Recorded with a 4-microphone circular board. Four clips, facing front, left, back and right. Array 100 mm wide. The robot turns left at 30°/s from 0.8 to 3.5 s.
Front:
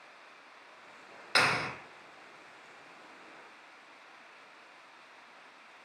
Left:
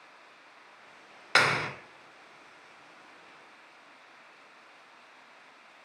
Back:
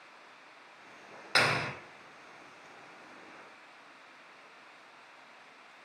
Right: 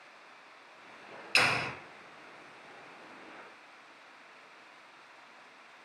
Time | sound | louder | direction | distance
1.4 | a clap | left 4 dB, even | 95° left | 2 m